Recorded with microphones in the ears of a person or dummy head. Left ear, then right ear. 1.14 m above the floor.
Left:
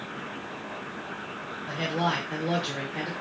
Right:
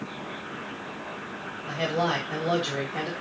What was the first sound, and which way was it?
A man speaking, 25° right (ahead or behind).